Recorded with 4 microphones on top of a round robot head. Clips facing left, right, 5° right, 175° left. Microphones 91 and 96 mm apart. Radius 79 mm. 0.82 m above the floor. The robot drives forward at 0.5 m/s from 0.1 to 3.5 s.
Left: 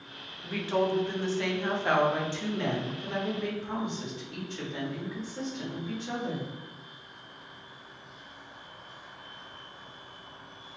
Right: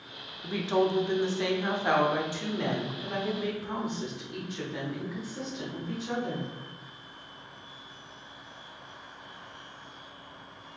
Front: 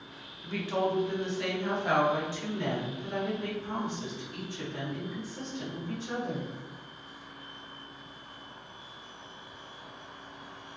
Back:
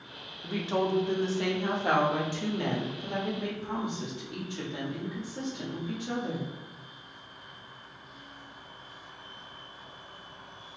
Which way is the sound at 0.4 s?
130° right.